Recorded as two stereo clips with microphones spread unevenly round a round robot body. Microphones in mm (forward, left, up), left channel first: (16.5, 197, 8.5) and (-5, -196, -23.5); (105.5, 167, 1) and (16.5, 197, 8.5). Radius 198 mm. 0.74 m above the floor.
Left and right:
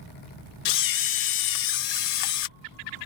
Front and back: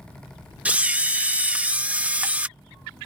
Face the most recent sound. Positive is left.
turn(degrees=85)